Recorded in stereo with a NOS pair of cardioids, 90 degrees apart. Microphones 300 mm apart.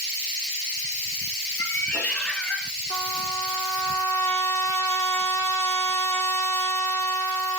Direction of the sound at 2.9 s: 10° left.